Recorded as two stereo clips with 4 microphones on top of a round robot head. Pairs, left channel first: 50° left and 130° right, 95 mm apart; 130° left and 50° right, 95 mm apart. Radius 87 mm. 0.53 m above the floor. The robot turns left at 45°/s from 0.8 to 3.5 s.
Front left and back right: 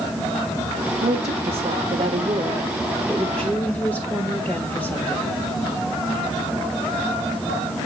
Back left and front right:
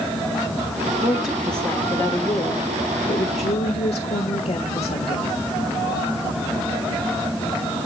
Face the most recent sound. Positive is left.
turn(degrees=120)